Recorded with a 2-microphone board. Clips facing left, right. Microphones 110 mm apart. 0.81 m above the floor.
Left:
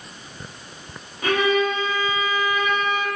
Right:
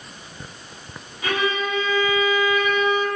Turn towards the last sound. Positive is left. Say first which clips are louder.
# left 4 dB
turn(degrees=40)  # may be behind; listen again after turning